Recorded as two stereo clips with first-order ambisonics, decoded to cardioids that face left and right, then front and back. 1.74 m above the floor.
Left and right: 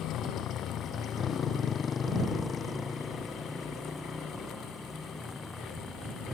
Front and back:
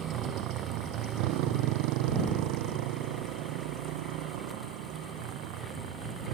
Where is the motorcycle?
140° left; by 6.3 s straight behind.